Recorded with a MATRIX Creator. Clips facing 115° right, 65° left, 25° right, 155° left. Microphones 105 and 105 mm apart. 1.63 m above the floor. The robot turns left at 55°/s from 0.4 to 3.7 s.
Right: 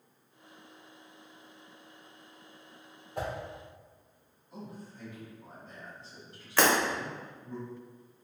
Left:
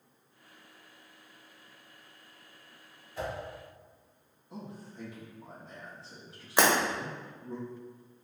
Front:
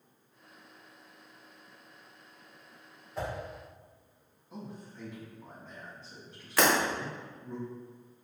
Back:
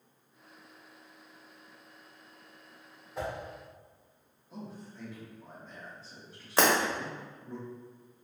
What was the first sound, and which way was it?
A whoosh, 115° right.